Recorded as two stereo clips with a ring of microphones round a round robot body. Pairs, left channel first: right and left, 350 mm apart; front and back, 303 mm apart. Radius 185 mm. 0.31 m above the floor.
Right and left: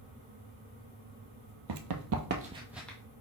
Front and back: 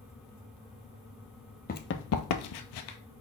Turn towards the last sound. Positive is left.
turn(degrees=-5)